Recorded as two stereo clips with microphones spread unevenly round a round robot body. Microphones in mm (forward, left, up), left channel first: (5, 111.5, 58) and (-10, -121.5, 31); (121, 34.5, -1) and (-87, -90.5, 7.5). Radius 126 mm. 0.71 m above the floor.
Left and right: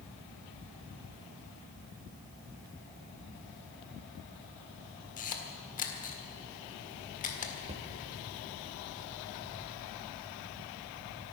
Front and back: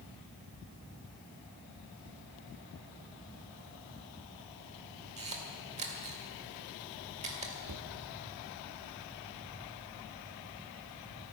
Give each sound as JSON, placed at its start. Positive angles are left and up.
{"t": 5.2, "sound": "a camera shutter", "azimuth_deg": 145, "distance_m": 1.8}
{"t": 7.7, "sound": "a cupboard door", "azimuth_deg": -145, "distance_m": 1.1}